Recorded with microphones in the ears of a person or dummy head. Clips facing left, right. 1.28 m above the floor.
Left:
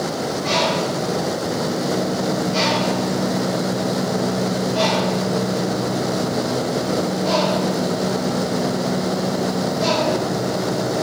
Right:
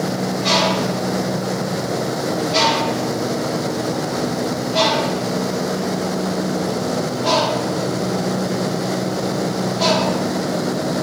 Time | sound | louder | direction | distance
0.4 | a bird | right 1 dB | 75° right (ahead or behind) | 2 m